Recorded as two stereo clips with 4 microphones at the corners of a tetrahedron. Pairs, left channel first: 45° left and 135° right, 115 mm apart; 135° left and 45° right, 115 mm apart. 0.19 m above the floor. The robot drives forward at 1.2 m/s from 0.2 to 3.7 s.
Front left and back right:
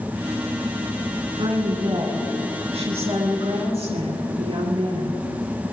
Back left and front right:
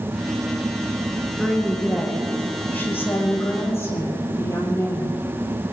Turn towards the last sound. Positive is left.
turn(degrees=-160)